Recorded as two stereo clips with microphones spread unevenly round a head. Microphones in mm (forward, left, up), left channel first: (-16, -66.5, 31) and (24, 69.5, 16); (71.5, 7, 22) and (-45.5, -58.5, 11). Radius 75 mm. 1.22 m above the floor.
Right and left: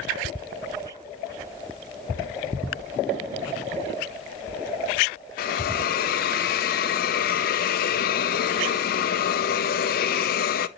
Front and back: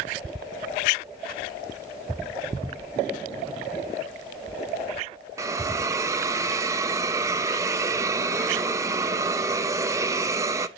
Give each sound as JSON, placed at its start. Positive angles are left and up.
{"t": 5.4, "sound": "a hiss", "azimuth_deg": -85, "distance_m": 0.6}